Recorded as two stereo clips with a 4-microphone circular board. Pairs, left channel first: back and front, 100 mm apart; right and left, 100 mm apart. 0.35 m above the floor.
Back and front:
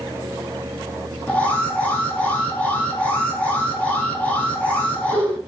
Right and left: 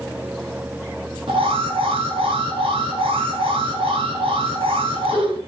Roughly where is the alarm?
Left.